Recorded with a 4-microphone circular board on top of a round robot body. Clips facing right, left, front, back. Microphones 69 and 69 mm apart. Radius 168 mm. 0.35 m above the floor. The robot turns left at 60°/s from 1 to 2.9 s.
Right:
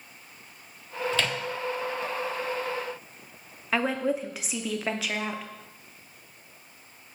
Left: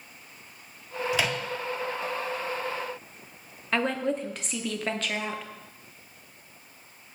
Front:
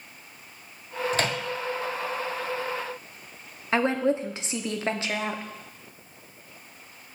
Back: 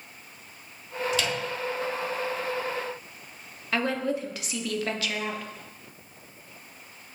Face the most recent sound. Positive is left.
turn(degrees=-15)